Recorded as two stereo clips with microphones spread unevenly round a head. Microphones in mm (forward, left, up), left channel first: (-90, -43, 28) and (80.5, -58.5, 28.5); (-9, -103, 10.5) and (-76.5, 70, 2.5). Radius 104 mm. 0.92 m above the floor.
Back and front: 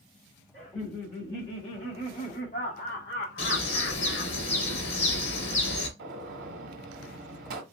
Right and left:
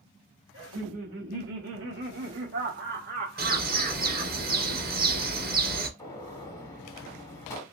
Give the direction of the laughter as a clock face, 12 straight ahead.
9 o'clock.